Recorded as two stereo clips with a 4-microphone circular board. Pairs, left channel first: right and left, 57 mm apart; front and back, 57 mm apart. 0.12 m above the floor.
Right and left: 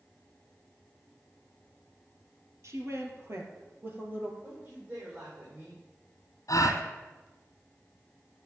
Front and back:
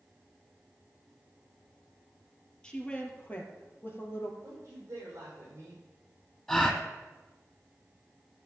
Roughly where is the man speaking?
Behind left.